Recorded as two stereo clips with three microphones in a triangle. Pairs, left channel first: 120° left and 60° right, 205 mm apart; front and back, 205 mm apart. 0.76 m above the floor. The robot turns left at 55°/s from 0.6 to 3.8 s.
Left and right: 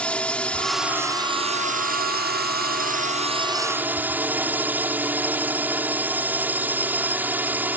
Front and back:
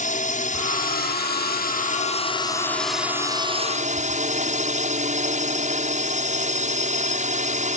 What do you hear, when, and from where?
0.0 s a drone: 35° left; by 7.8 s 140° right